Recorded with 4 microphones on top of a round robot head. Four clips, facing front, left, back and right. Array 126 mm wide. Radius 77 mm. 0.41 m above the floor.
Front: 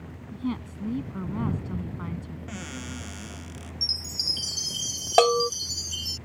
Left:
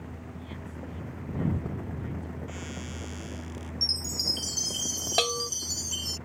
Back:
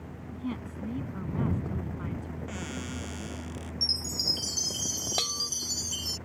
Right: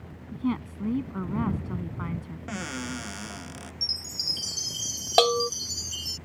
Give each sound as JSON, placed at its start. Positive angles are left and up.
{"t": 0.3, "sound": "a woman speaking", "azimuth_deg": -75}
{"t": 2.5, "sound": "a cupboard door", "azimuth_deg": -90}
{"t": 3.8, "sound": "a chime", "azimuth_deg": 130}
{"t": 5.2, "sound": "a bell", "azimuth_deg": -30}